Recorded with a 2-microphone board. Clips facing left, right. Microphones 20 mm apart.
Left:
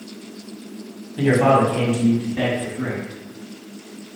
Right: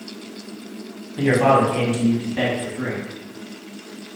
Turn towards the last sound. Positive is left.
turn(degrees=-30)  # may be behind; listen again after turning